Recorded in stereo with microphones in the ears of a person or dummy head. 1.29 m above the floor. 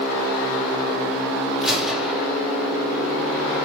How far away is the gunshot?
About 2 m.